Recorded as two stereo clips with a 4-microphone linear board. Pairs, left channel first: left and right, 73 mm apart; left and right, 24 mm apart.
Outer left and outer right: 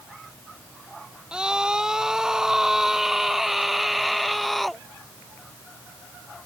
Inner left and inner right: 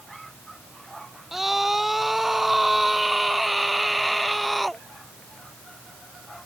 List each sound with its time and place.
1.3 s a scream: 10° right (ahead or behind); by 4.8 s centre (ahead or behind)